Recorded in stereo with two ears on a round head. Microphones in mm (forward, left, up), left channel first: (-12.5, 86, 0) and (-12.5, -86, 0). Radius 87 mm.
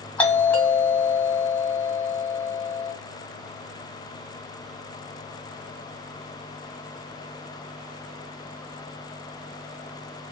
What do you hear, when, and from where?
0.2 s a doorbell: 10° left (ahead or behind), 1.4 m